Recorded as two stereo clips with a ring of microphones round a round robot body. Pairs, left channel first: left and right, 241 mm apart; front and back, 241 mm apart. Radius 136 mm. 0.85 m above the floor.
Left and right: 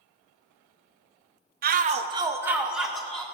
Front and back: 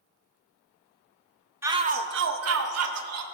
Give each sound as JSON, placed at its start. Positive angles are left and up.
{"t": 1.6, "sound": "a shout", "azimuth_deg": -105, "distance_m": 0.7}